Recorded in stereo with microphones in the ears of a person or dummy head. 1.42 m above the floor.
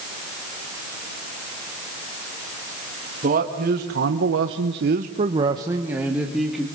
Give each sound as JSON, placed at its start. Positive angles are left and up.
{"t": 3.2, "sound": "a man speaking", "side_deg": -45, "distance_m": 2.5}